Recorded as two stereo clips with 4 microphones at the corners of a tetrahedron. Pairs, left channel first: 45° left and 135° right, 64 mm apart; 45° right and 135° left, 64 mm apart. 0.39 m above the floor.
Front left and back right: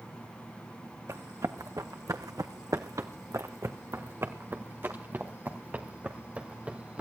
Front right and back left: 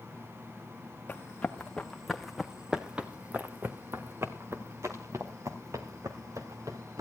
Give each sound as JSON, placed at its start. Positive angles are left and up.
{"t": 1.1, "sound": "running footsteps", "azimuth_deg": -110, "distance_m": 1.7}